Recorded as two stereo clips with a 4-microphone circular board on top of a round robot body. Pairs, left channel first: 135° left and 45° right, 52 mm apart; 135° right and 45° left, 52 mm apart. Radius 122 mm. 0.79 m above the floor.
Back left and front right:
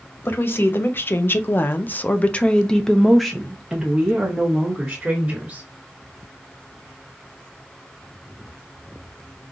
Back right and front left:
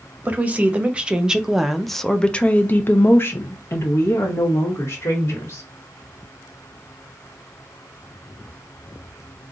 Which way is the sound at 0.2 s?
100° left.